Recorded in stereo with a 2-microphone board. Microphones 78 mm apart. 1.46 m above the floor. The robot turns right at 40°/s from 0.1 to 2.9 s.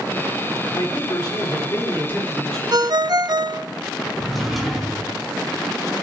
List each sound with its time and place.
0.7 s a man speaking: 95° left, 4.5 m; by 2.6 s 170° left, 4.5 m
2.7 s a ringtone: 55° right (ahead or behind), 0.6 m
4.2 s a drawer: 5° left (ahead or behind), 5.5 m